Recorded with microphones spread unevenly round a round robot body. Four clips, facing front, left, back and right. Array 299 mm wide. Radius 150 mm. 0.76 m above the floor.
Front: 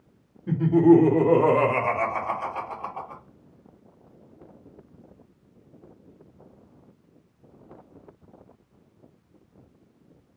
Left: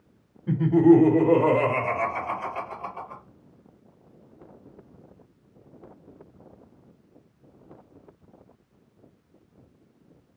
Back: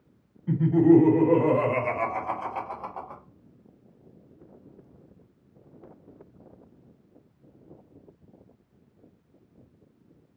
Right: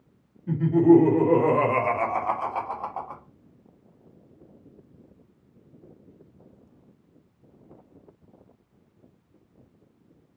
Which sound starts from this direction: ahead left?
Laughter, at 0.5 s.